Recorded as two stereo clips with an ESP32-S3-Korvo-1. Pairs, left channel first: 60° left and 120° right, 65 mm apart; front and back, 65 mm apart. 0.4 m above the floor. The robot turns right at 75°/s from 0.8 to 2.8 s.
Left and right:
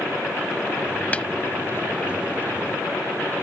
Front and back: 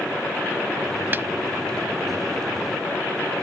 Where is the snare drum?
125° left; by 1.3 s 135° left.